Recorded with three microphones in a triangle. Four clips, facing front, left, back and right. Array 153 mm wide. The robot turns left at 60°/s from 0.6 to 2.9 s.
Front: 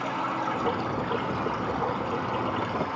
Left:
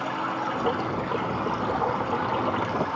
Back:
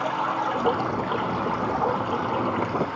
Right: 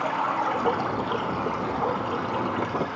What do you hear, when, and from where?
0.0 s running water: 135° right, 1.6 m; by 3.0 s 85° left, 1.6 m